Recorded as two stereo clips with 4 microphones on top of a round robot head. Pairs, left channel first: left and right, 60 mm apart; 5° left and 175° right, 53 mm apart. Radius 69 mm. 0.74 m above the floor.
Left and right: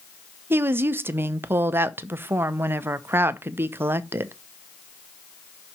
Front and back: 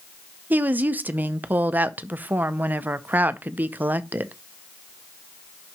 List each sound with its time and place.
0.5 s a woman speaking: 130° right, 0.6 m